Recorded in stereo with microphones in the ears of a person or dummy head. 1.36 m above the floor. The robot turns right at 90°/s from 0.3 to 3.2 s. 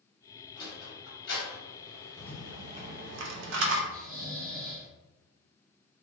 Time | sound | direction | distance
0.6 | a sliding door | 25° left (ahead or behind) | 1.7 m
2.2 | a rattle | 160° left | 0.7 m
3.9 | snoring | 45° right (ahead or behind) | 0.6 m